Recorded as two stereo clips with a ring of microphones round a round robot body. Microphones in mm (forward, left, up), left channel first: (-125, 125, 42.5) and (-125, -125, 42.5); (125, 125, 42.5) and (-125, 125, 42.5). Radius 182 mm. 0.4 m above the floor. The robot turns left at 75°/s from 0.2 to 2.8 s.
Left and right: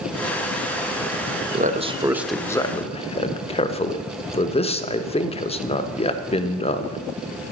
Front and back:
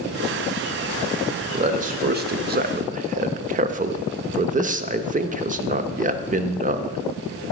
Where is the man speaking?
125° right, 0.9 m; by 7.0 s 145° left, 0.9 m.